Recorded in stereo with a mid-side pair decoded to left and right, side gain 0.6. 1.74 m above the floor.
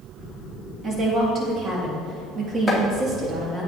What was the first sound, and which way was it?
A woman speaking, 40° right.